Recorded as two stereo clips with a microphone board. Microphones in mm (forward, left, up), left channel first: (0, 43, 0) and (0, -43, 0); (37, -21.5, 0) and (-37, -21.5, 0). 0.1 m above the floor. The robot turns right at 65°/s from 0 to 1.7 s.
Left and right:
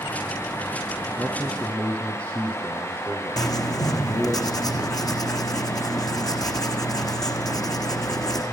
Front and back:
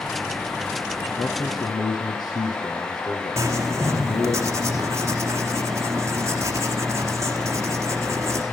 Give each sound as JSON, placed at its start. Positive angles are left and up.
{"t": 1.2, "sound": "a man speaking", "azimuth_deg": -20, "distance_m": 5.0}
{"t": 3.4, "sound": "writing", "azimuth_deg": 130, "distance_m": 3.5}